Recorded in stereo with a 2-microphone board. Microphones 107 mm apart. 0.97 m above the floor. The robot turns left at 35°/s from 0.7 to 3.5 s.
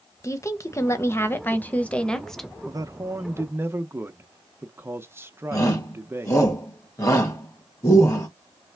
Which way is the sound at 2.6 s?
35° right (ahead or behind).